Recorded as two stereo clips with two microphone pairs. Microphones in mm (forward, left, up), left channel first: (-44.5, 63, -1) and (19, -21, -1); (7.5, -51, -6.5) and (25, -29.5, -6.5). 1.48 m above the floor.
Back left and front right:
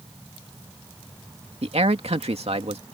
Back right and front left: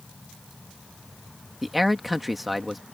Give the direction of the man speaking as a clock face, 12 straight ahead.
1 o'clock.